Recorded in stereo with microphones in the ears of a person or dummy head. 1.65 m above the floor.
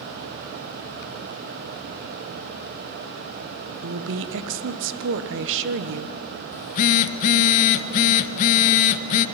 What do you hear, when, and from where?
3.8 s a woman speaking: 65° right (ahead or behind), 1.3 m
6.5 s a phone buzzing: 40° left (ahead or behind), 0.5 m